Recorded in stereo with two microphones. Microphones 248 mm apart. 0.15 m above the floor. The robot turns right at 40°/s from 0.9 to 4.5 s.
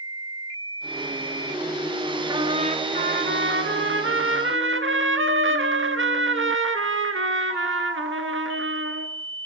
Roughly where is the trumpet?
Behind.